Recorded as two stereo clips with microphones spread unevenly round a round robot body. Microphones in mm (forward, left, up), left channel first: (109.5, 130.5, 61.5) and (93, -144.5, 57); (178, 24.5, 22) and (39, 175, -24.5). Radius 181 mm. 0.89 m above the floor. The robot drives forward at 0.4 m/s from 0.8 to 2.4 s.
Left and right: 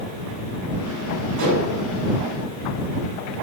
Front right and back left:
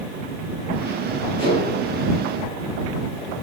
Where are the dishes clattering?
125° right, 3.5 m.